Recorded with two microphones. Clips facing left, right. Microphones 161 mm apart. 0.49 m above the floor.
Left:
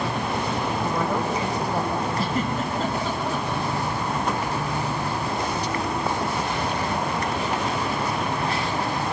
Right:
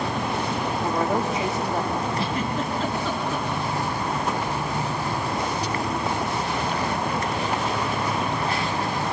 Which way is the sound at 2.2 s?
45° left (ahead or behind).